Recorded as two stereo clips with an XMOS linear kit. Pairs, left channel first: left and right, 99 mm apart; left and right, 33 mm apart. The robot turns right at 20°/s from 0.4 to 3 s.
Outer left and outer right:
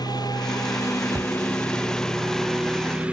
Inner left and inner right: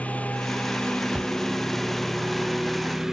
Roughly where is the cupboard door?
Right.